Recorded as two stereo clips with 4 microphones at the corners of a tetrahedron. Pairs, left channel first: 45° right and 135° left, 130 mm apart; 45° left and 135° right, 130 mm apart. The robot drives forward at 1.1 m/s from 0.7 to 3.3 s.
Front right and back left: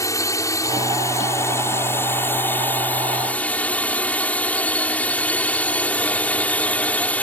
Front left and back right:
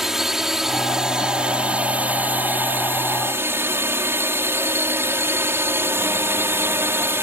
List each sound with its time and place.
0.0 s a drone: 50° right; by 7.2 s 100° right